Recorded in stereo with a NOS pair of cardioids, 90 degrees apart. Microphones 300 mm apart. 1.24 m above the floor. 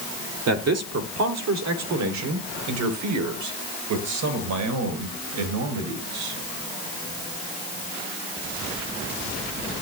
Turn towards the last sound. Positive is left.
turn(degrees=-75)